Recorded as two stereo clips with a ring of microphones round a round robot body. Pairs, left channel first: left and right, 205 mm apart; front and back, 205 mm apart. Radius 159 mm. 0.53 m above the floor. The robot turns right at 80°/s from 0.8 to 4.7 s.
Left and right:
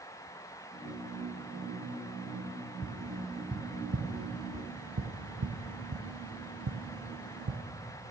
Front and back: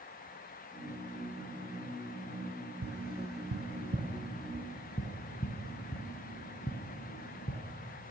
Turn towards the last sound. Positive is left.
turn(degrees=-70)